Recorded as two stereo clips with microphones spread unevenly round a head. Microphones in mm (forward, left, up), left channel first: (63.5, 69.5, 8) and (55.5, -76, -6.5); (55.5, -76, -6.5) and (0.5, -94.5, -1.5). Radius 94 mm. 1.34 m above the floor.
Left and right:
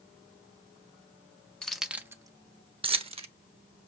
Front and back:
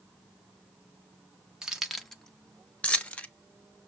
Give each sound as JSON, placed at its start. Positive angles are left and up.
{"t": 1.6, "sound": "keys jangling", "azimuth_deg": 145, "distance_m": 0.5}